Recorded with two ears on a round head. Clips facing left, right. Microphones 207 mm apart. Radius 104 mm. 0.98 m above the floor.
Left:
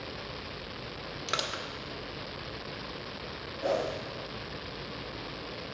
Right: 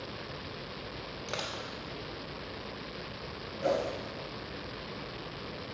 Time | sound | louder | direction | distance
1.3 | crushing | left 1 dB | 25° left (ahead or behind) | 1.2 m
3.6 | a whoosh | even | 35° right (ahead or behind) | 5.5 m